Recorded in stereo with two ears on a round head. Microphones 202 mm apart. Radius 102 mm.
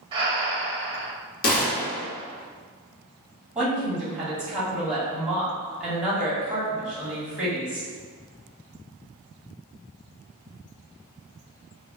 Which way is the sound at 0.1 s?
25° right (ahead or behind).